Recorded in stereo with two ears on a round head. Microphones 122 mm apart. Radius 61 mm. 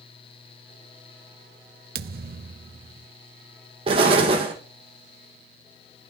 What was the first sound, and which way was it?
A thud, 70° right (ahead or behind).